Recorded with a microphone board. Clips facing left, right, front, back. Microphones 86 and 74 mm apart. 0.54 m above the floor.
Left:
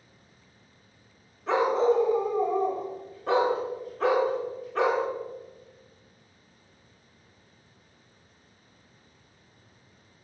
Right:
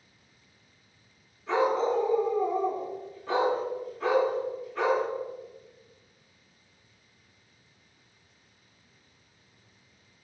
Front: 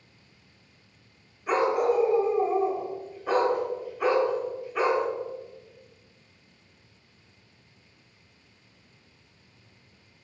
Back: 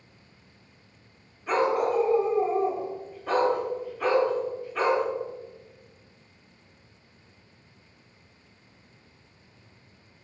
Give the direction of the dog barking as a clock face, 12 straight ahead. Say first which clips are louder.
Left 2 dB, front 1 dB; 9 o'clock.